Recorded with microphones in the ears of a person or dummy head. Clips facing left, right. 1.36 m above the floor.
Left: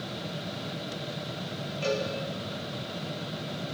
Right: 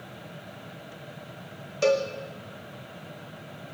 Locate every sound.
0.0 s a fan: 55° left (ahead or behind), 0.7 m
1.8 s a cowbell: 60° right (ahead or behind), 2 m